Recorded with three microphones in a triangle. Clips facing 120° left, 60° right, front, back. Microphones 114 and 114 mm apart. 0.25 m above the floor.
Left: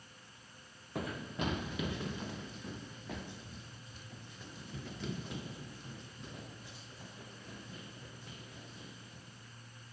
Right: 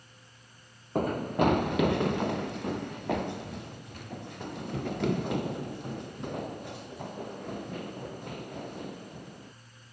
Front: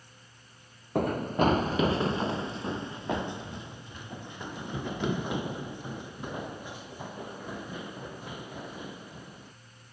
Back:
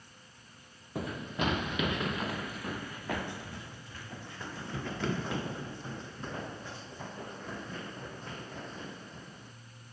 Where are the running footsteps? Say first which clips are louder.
Right 12 dB, front 9 dB; 25° right; by 9.5 s 80° right.